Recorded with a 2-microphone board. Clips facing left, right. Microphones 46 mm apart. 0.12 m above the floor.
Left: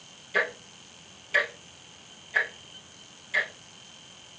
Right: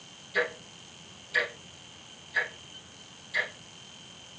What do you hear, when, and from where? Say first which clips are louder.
0.3 s ticking: left 2 dB; 55° left (ahead or behind), 2.5 m